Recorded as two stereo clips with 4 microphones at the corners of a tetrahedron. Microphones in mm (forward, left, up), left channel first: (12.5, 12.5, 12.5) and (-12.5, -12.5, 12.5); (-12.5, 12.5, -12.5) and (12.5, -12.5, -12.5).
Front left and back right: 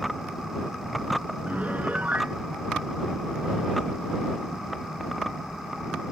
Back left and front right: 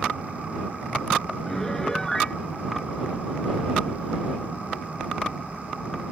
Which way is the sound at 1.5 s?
155° right.